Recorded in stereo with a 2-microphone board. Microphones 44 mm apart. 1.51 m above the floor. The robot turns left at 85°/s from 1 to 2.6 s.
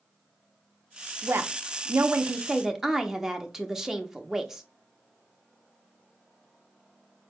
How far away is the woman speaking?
About 0.5 m.